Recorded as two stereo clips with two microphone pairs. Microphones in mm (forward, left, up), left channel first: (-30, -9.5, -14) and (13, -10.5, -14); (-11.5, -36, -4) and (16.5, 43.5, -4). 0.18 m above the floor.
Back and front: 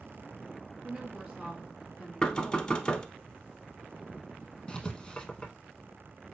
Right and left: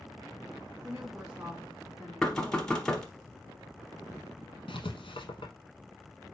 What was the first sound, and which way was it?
A woman speaking, 35° left.